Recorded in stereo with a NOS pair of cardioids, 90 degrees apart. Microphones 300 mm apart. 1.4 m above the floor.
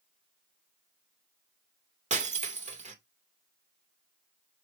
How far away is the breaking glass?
About 2.5 m.